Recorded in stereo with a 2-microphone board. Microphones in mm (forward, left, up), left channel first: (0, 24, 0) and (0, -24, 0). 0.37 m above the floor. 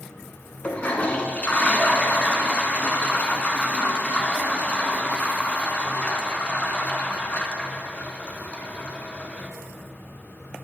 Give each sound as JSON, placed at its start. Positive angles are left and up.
{"t": 0.6, "sound": "a toilet flushing", "side_deg": 30, "distance_m": 0.6}